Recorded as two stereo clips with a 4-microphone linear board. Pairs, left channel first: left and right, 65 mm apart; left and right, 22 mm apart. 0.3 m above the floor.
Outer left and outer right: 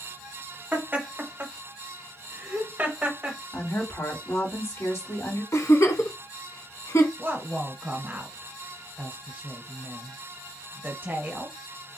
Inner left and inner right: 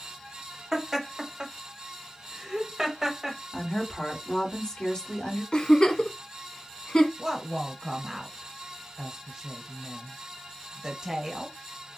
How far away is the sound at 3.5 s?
About 1.9 m.